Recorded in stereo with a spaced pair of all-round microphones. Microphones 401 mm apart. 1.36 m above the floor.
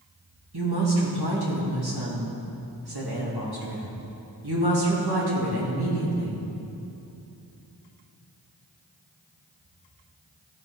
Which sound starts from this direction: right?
A woman speaking, at 0.5 s.